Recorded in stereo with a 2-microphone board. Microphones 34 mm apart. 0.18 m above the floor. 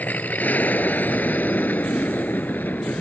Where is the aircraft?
55° left (ahead or behind); by 3.0 s 60° left (ahead or behind).